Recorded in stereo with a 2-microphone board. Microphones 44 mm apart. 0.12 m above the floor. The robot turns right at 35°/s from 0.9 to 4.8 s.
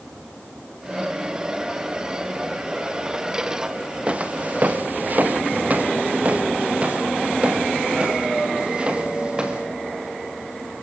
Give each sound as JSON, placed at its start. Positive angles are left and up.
{"t": 4.1, "sound": "footsteps", "side_deg": -25, "distance_m": 1.6}